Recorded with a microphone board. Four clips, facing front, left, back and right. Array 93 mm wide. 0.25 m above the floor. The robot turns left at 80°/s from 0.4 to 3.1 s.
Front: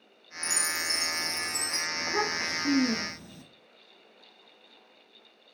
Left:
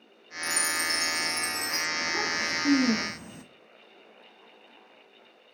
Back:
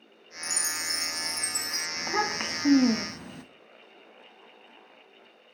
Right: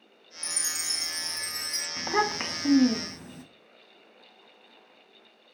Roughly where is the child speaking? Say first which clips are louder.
Right 7 dB, back 2 dB; right.